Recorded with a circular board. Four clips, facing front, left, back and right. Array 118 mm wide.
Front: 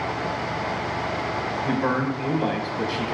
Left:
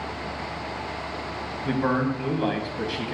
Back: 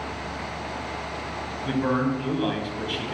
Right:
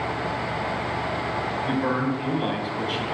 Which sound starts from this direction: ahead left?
A man speaking, at 1.6 s.